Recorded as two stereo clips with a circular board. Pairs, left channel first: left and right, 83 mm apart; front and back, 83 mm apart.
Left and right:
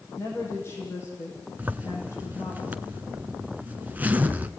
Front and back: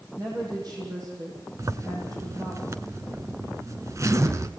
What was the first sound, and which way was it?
A woman speaking, 145° left.